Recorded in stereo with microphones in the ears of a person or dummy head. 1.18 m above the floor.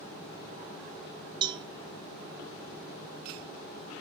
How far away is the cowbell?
About 1.0 m.